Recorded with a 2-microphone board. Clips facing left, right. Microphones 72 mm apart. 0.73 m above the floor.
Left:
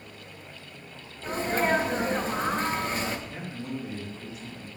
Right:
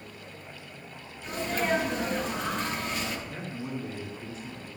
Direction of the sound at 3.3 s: 40° right (ahead or behind).